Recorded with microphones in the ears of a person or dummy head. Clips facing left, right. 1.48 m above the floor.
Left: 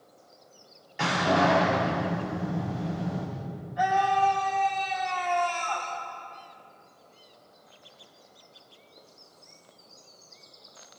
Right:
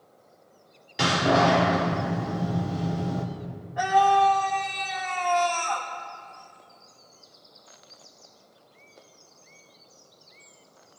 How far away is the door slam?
About 3.5 m.